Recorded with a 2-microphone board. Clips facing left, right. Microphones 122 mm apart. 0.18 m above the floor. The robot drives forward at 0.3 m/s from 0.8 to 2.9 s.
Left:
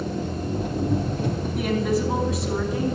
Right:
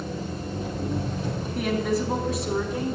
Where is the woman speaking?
Centre (ahead or behind), 1.2 m.